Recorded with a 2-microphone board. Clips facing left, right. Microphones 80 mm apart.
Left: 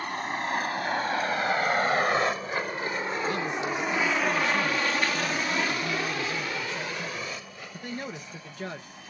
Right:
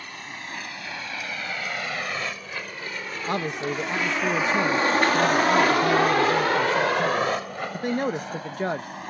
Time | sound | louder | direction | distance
0.0 | a vehicle | left 8 dB | 50° left (ahead or behind) | ?
3.3 | a man speaking | right 2 dB | 60° right (ahead or behind) | ?